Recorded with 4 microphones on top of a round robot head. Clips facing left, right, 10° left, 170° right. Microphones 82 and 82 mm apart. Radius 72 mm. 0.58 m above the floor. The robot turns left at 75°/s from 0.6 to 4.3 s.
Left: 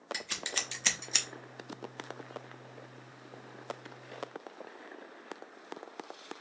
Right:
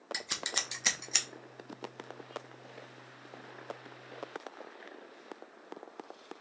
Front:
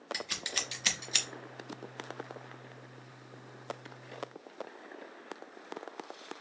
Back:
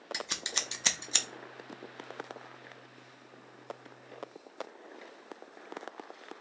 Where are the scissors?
140° right, 0.8 m; by 1.3 s 170° left, 0.8 m.